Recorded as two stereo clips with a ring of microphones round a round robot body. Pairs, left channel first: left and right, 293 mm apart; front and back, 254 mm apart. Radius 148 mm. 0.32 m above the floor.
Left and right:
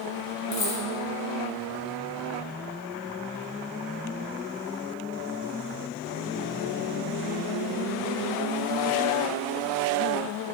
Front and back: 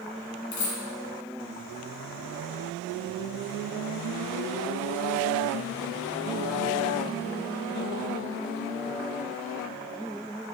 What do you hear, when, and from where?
0.5 s a dropped coin: 20° left, 1.4 m